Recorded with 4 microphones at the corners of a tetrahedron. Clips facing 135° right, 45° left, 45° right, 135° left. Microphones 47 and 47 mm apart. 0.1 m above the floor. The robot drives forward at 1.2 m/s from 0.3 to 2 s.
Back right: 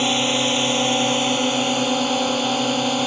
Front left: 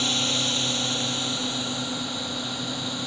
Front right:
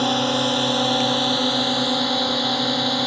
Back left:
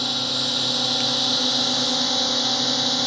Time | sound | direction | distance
0.0 | a drone | 90° right | ?